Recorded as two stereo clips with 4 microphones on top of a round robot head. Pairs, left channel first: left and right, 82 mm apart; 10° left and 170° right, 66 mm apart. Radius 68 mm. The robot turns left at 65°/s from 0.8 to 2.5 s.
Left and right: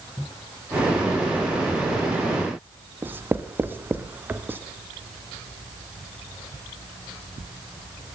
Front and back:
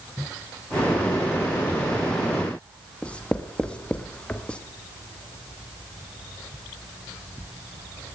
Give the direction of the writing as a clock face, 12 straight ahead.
2 o'clock.